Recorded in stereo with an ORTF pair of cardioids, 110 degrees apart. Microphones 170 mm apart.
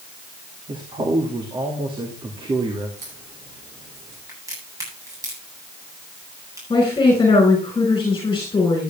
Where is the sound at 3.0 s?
45° right, 7.5 m.